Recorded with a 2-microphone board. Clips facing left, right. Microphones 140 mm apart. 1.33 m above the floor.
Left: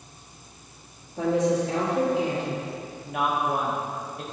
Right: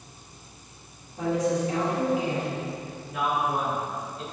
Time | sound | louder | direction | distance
1.2 | a woman speaking | left 3 dB | 80° left | 2 m
3.0 | a woman speaking | left 1 dB | 60° left (ahead or behind) | 1.2 m